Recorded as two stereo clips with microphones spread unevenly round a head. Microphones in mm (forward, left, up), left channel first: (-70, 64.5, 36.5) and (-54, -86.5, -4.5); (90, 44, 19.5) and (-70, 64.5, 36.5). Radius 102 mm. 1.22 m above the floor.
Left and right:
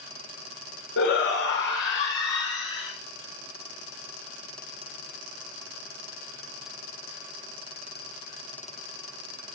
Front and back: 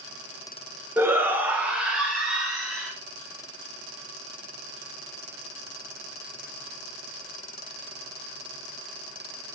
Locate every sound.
1.0 s a shout: 95° left, 1.3 m; by 2.9 s 85° left, 3 m